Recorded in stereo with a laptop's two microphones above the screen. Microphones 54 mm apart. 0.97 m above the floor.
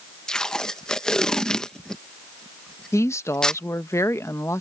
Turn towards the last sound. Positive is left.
turn(degrees=65)  # may be behind; listen again after turning